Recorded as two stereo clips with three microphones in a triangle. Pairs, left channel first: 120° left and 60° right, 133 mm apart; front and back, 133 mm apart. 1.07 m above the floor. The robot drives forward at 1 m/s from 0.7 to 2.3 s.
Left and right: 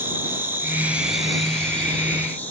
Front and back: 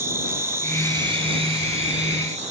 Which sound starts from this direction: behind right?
An insect, at 0.0 s.